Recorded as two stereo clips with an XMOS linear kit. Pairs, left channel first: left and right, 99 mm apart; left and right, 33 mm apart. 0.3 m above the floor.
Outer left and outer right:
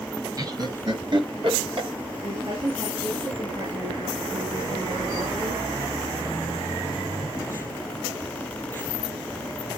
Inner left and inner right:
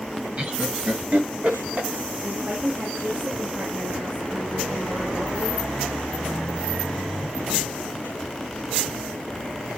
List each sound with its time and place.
0.4 s laughter: 40° right (ahead or behind), 2.0 m; by 1.9 s 60° right (ahead or behind), 3.5 m
2.2 s a woman speaking: 70° right (ahead or behind), 4.5 m